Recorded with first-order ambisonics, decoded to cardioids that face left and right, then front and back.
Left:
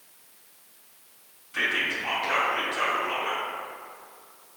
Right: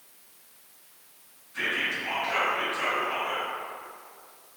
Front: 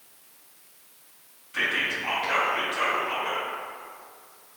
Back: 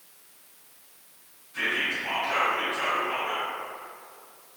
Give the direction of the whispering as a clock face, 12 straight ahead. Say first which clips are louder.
Left 2 dB, front 1 dB; 10 o'clock.